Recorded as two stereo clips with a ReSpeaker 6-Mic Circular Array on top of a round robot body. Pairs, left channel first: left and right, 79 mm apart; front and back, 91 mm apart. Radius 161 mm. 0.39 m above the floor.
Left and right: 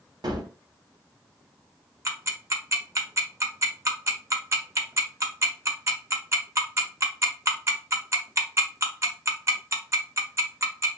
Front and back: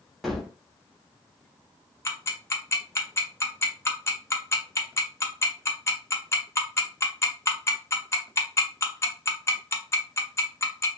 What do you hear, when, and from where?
0.2 s a gunshot: 90° right, 0.9 m
2.0 s ticking: 50° right, 1.0 m